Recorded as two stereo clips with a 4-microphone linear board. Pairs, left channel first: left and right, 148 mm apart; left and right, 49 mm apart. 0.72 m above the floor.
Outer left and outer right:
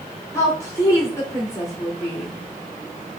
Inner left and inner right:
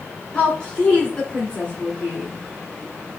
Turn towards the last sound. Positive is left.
turn(degrees=20)  # may be behind; listen again after turning